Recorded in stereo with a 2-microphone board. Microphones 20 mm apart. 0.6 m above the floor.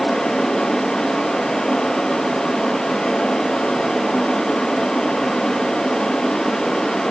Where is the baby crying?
I don't hear a baby crying.